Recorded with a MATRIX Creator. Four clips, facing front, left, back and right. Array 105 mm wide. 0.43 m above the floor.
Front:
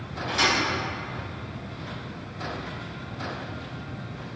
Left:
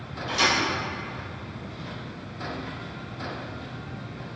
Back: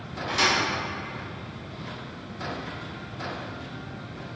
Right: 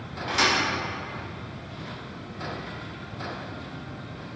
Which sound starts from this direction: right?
A thud, at 0.3 s.